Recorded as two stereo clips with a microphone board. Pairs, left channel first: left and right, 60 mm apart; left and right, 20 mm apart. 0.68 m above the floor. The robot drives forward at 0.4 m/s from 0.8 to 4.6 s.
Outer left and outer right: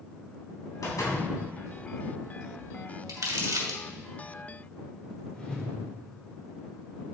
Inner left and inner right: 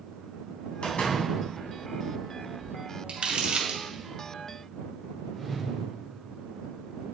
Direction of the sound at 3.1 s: 85° right.